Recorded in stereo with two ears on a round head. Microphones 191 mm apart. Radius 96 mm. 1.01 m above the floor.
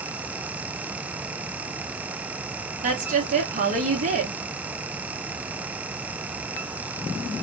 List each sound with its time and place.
2.8 s a woman speaking: 35° right (ahead or behind), 1.2 m